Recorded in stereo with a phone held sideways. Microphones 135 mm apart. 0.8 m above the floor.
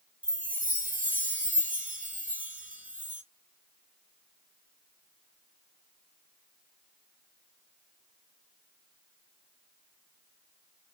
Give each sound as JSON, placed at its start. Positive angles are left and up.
{"t": 0.2, "sound": "a chime", "side_deg": -80, "distance_m": 1.6}